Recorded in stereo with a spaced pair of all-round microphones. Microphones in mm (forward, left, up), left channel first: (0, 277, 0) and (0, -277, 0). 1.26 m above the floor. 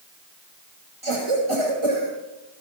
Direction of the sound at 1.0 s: 60° right (ahead or behind).